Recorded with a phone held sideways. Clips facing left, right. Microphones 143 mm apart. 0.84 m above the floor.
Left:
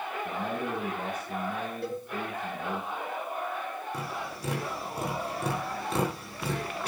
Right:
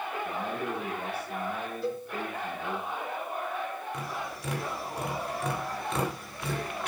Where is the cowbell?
65° left (ahead or behind), 4.5 m.